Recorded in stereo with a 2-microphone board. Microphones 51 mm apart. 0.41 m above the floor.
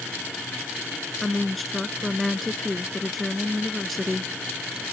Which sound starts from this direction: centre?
A woman speaking, at 1.2 s.